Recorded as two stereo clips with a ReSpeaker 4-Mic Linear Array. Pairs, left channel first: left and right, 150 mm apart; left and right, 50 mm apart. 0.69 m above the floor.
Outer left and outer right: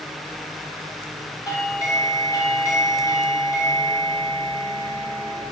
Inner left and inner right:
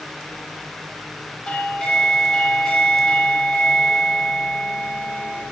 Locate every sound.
1.5 s a doorbell: 20° left (ahead or behind), 3.5 m